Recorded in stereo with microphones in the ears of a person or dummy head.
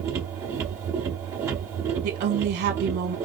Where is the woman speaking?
45° right (ahead or behind), 1.3 m.